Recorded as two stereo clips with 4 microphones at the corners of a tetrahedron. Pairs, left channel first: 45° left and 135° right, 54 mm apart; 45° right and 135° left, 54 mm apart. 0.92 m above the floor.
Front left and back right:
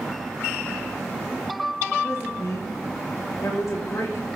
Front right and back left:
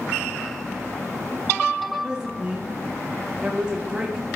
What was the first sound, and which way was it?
A woman speaking, 60° left.